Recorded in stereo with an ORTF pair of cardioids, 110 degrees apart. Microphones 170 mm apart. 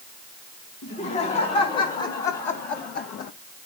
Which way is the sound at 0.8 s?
55° left.